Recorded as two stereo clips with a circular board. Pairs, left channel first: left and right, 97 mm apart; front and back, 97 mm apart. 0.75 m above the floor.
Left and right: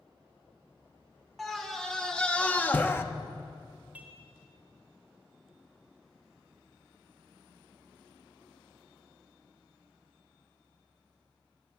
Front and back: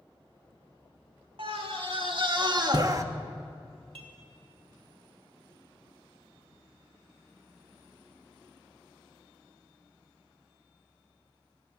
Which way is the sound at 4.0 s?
165° right.